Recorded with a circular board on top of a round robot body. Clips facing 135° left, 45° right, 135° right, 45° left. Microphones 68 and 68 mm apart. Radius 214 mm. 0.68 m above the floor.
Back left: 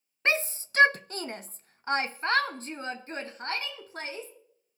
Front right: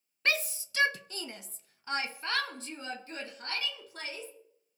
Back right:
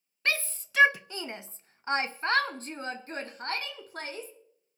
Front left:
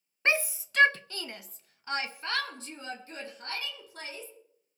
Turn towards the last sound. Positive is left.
turn(degrees=-175)